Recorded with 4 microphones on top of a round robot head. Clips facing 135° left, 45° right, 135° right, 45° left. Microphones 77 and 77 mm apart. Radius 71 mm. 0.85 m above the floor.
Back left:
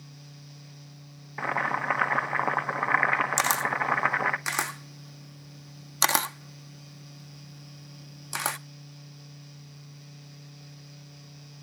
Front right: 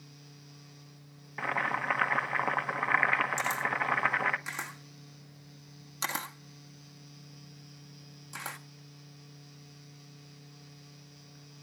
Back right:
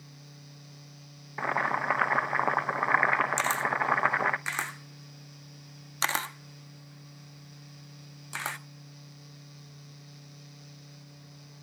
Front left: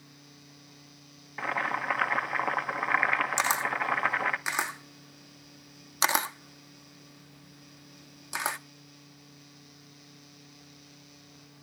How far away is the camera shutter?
About 0.6 m.